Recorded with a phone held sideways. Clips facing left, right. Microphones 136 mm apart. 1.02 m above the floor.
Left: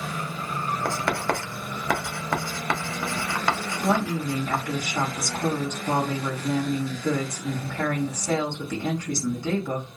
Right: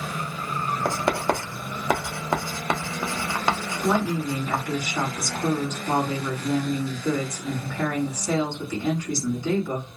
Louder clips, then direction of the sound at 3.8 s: Right 1 dB; 55° left (ahead or behind).